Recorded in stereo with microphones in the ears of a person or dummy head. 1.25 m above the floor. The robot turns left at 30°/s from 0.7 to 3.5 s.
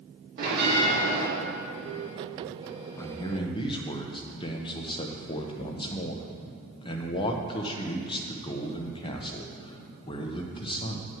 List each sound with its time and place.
0.4 s a bell: 60° right (ahead or behind), 3.5 m; by 1.3 s 75° right (ahead or behind), 3.5 m
3.0 s a man speaking: 15° left (ahead or behind), 1.0 m; by 11.1 s 30° left (ahead or behind), 1.0 m